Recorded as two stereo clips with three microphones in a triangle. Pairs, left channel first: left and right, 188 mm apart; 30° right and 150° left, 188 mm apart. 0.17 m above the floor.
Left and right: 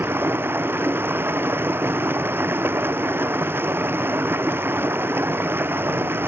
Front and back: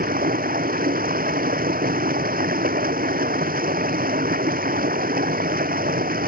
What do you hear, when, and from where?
0.0 s running water: 170° right